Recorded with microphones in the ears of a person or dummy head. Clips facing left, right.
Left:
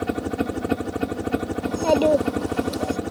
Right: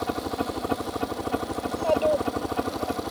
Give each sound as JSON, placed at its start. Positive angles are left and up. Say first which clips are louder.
{"t": 0.0, "sound": "a helicopter", "louder": "left 4 dB", "side_deg": 25}
{"t": 1.6, "sound": "a child speaking", "louder": "left 4 dB", "side_deg": 70}